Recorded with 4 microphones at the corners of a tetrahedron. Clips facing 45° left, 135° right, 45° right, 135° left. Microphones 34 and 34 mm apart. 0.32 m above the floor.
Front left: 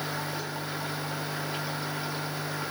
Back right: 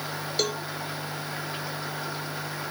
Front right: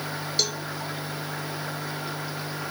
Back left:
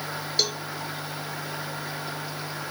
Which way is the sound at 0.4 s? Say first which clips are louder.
Back right 7 dB, back left 1 dB; 145° right.